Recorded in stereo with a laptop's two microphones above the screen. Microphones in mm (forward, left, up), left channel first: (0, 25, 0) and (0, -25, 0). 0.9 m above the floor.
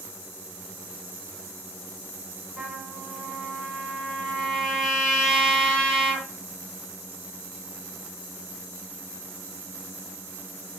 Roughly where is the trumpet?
Centre.